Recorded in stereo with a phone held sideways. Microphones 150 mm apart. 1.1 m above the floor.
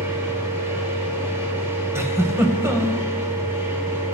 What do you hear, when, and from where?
0.0 s a machine running: 15° right (ahead or behind), 1.7 m
1.9 s a giggle: 15° right (ahead or behind), 1.0 m